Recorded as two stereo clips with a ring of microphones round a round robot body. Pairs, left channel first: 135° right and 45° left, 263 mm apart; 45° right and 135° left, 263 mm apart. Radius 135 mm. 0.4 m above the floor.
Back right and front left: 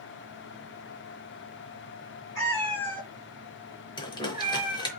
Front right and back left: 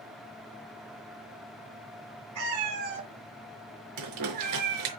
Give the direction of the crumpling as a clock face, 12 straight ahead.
7 o'clock.